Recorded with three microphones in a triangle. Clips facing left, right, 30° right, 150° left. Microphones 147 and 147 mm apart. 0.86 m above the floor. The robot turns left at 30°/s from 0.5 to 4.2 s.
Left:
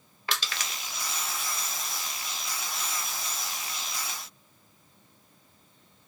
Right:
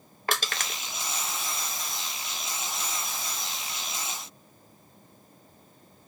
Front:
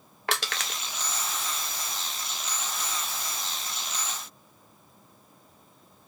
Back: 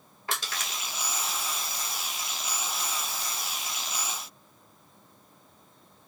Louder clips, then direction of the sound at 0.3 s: Right 4 dB, front 3 dB; 45° right.